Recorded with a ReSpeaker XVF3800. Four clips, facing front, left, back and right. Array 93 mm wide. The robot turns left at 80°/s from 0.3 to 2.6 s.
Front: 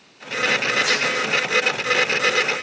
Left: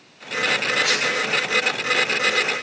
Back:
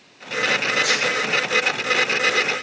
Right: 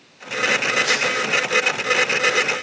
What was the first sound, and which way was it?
A dropped coin, 60° left.